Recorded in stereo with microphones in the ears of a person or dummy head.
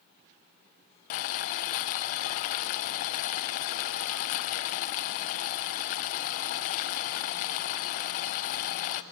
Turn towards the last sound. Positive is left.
turn(degrees=50)  # may be behind; listen again after turning